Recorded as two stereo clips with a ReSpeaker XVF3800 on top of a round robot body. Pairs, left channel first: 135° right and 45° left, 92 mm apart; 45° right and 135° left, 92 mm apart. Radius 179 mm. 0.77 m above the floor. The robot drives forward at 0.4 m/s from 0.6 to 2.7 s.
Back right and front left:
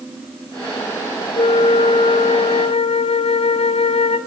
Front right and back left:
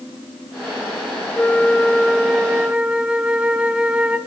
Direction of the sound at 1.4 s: 120° right.